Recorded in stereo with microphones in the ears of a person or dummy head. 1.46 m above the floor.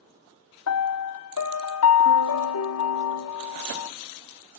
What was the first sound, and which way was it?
A piano, 65° left (ahead or behind).